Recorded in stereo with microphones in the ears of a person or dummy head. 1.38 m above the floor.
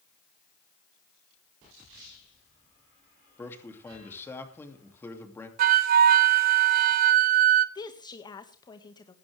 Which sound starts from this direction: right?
A flute, at 5.6 s.